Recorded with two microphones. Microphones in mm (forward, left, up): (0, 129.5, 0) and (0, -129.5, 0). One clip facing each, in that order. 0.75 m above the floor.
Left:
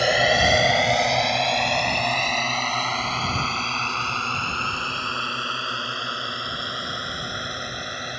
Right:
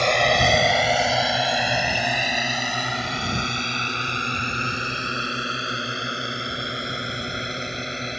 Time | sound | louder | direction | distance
0.0 | a drone | even | 5° left (ahead or behind) | ?